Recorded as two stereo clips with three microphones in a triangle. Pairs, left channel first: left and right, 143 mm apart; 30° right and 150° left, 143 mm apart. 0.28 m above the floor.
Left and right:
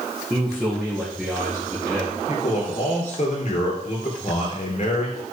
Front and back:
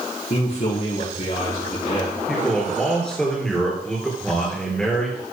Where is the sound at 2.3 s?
55° left, 3.5 m.